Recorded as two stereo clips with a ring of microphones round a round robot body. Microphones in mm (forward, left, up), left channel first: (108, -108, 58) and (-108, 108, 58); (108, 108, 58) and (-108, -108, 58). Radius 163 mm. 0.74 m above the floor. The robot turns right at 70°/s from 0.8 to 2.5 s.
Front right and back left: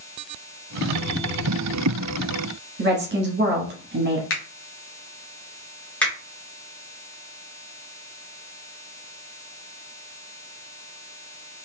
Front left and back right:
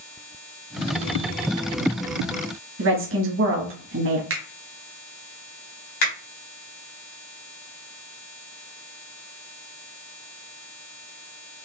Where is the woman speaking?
175° right, 1.2 m.